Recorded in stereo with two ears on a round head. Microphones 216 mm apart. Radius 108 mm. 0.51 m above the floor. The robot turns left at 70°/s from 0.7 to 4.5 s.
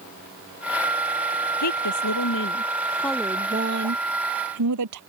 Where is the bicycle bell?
No bicycle bell in this recording.